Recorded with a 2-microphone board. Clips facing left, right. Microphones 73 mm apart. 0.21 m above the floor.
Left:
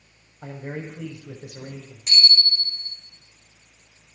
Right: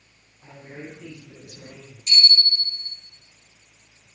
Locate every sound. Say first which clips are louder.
0.4 s a man speaking: left 6 dB; 75° left (ahead or behind), 5.5 m
2.1 s a bicycle bell: even; 60° left (ahead or behind), 8 m